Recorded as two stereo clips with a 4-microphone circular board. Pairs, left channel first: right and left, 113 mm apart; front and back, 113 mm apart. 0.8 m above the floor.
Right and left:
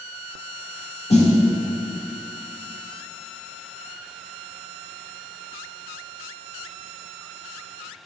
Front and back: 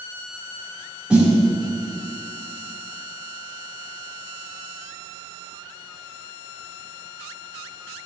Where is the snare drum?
100° right, 2 m.